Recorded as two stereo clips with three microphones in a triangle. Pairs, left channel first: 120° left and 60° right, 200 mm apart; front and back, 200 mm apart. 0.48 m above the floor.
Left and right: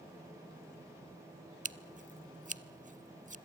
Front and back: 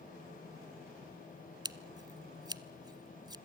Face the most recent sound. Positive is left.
turn(degrees=-110)